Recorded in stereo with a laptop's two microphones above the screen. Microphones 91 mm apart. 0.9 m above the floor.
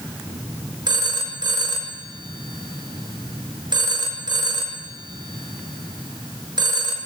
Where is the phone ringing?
50° right (ahead or behind), 0.8 m.